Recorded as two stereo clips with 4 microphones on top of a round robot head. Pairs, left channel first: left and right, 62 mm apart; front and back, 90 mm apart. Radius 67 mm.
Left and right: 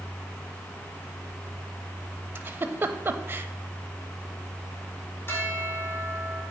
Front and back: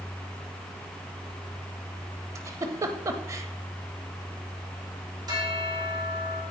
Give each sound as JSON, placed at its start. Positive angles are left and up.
{"t": 2.4, "sound": "a giggle", "azimuth_deg": -135, "distance_m": 0.7}
{"t": 5.3, "sound": "a bell", "azimuth_deg": 140, "distance_m": 2.5}